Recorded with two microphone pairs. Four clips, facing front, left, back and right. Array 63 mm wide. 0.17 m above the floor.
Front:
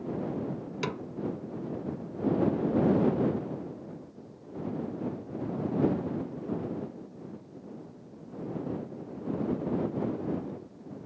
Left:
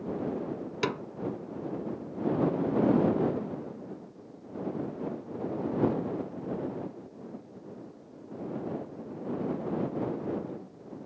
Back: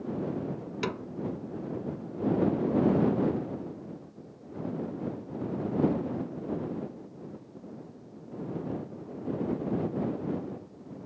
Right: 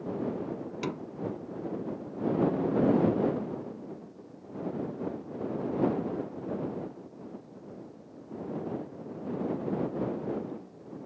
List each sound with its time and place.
0.8 s a snare drum: 95° left